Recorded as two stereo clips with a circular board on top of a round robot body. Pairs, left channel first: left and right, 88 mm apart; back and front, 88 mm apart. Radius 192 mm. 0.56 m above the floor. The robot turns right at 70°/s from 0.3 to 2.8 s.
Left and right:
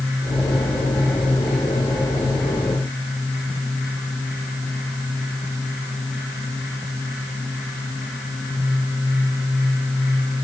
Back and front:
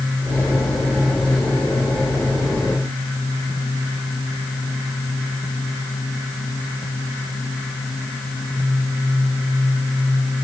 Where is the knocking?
I don't hear knocking.